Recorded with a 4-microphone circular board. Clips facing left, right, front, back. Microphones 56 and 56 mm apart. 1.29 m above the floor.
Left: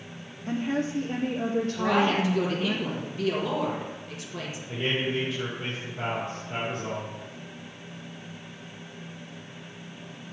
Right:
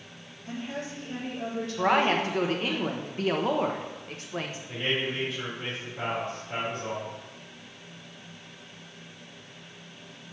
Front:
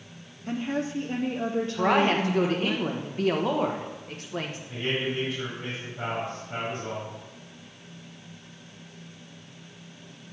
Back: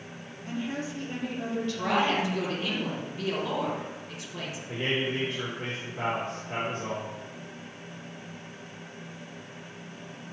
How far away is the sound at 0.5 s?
About 0.6 m.